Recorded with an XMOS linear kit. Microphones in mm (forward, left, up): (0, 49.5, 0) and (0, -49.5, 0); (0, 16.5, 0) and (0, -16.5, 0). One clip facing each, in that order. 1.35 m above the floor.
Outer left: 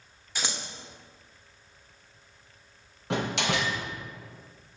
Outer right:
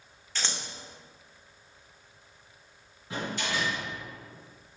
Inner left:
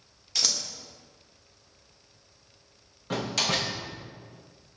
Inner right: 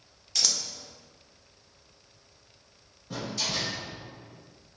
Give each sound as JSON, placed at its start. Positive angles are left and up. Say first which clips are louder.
{"t": 0.3, "sound": "scissors", "louder": "outer left 1 dB, even", "side_deg": 10, "distance_m": 1.0}
{"t": 3.1, "sound": "a door slam", "louder": "outer left 5 dB, inner left 5 dB", "side_deg": 65, "distance_m": 1.0}